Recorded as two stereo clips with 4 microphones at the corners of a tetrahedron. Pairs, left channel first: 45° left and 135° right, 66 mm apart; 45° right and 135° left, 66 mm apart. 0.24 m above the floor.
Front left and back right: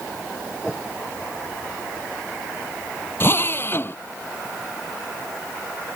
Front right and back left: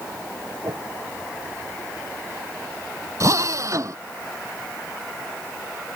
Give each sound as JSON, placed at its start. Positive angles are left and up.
{"t": 0.6, "sound": "a whoosh", "azimuth_deg": 125}
{"t": 3.2, "sound": "a drill", "azimuth_deg": 95}